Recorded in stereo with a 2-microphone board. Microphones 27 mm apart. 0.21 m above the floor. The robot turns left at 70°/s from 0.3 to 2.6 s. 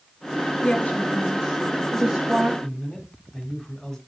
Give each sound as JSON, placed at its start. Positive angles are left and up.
{"t": 0.6, "sound": "a woman speaking", "azimuth_deg": 65, "distance_m": 4.5}
{"t": 2.6, "sound": "a man speaking", "side_deg": 25, "distance_m": 1.3}